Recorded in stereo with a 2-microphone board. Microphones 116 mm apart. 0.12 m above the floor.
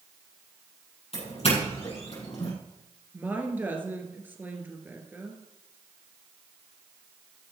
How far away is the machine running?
I don't hear a machine running.